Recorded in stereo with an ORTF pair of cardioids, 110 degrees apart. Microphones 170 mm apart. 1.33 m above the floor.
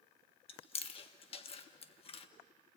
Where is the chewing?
35° left, 1.4 m.